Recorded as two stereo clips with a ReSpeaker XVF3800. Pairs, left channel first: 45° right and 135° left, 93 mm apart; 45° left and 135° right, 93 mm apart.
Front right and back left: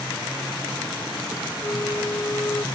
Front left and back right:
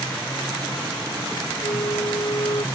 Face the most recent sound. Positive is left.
turn(degrees=15)